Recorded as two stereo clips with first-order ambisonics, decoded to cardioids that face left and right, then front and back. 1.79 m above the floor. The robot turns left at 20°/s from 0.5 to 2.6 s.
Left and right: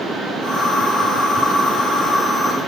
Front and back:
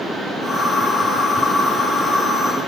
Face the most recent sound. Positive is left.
No sound to turn to.